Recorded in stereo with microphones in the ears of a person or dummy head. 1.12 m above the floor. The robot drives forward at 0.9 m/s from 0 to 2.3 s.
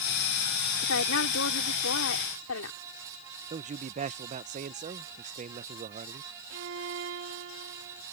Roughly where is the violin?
Right.